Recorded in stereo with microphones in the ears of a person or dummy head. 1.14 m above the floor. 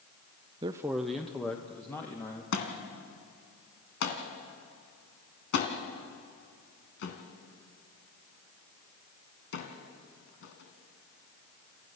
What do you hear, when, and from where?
0.6 s a man speaking: 25° right (ahead or behind), 0.5 m; by 2.4 s 15° left (ahead or behind), 2 m
2.5 s a thud: 65° left (ahead or behind), 2.5 m